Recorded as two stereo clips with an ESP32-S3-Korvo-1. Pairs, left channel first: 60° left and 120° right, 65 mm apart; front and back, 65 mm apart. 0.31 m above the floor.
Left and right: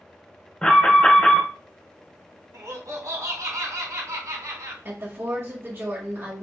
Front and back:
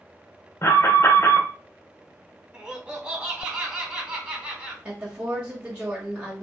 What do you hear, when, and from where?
0.6 s an alarm: 10° right, 1.3 m
2.5 s laughter: 105° right, 2.0 m
4.8 s a woman speaking: 120° right, 1.5 m